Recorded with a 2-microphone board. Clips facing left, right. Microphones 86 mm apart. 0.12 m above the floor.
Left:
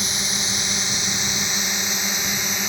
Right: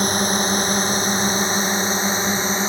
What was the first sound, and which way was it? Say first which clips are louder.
A drone: right 10 dB; 45° right (ahead or behind).